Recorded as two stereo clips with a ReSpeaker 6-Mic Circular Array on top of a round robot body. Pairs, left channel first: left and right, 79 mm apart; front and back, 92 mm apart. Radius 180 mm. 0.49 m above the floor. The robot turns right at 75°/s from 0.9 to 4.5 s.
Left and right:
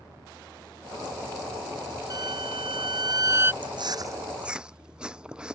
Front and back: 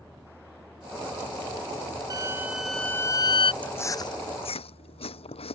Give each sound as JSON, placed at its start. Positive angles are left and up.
{"t": 2.1, "sound": "a violin", "azimuth_deg": -130}
{"t": 3.6, "sound": "chewing", "azimuth_deg": -75}